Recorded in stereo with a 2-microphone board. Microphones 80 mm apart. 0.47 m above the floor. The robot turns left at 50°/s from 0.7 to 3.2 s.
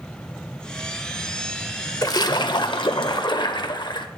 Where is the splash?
130° left, 0.7 m; by 4.1 s 70° left, 0.7 m.